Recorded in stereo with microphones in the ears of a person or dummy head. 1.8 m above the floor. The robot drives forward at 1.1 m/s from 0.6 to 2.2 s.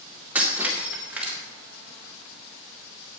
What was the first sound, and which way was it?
Breaking glass, 5° right (ahead or behind).